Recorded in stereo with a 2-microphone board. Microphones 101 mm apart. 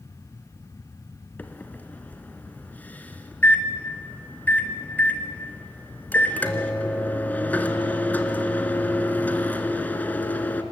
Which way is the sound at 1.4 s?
15° left (ahead or behind).